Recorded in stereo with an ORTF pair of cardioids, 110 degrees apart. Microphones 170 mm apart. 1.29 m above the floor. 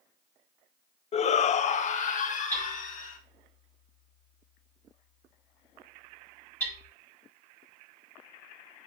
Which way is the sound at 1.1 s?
40° left.